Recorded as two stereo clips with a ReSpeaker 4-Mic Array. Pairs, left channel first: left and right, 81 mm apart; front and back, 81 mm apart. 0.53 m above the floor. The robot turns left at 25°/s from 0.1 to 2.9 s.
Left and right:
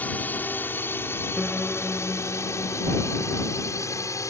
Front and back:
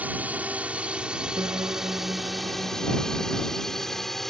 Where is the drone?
135° left; by 4.3 s 85° left.